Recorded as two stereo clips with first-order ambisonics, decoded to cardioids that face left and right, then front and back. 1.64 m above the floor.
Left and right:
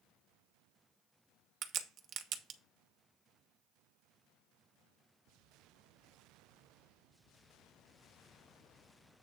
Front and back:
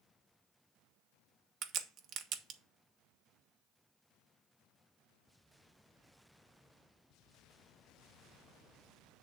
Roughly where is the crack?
Behind right.